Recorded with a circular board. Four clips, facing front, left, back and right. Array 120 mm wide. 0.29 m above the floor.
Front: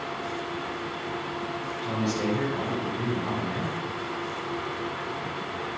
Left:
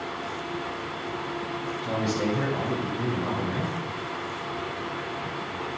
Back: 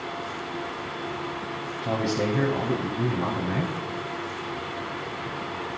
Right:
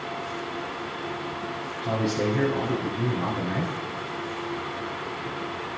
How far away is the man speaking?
About 1.6 m.